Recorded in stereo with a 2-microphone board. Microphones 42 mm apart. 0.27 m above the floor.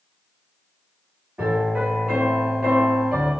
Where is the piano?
25° right (ahead or behind), 1.1 m.